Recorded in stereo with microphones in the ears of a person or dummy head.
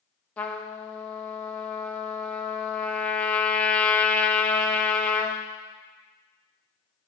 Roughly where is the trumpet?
Centre.